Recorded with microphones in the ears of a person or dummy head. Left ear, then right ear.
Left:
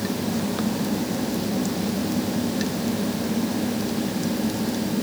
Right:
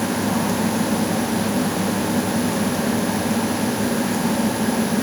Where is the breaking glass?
No breaking glass in this recording.